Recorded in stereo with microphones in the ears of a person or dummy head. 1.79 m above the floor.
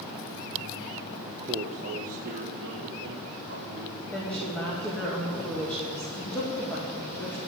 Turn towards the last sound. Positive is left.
turn(degrees=5)  # may be behind; listen again after turning